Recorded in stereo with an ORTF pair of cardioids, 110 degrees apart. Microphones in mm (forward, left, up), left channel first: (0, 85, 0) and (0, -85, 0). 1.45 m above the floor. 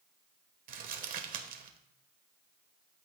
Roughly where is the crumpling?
Ahead right.